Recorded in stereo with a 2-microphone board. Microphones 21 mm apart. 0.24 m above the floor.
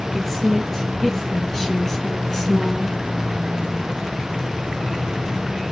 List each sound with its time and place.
0.1 s a woman speaking: 5° left (ahead or behind), 4 m; by 3.0 s 25° left (ahead or behind), 3 m